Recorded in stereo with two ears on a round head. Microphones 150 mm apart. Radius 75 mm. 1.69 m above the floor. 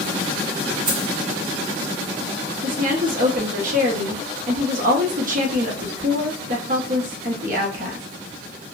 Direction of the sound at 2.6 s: 50° right (ahead or behind).